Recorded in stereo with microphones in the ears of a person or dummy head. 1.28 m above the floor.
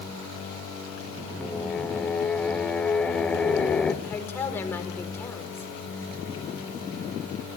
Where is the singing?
5° left (ahead or behind), 2 m.